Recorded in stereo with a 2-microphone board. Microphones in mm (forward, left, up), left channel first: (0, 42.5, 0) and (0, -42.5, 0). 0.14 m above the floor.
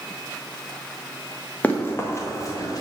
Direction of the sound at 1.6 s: 15° left (ahead or behind).